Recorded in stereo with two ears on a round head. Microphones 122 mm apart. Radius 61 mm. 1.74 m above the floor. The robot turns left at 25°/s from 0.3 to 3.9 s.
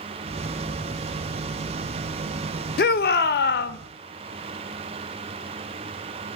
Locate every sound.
2.8 s a shout: 75° left (ahead or behind), 0.5 m